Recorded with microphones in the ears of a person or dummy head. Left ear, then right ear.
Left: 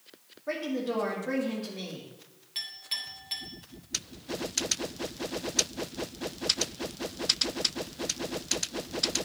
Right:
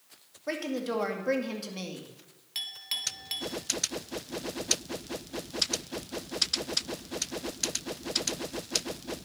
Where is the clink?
25° right (ahead or behind), 1.5 m.